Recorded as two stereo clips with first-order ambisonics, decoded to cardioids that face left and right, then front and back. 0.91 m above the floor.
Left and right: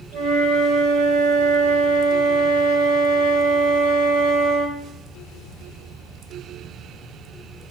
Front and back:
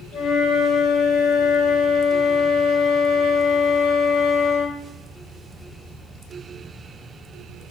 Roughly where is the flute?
Ahead right.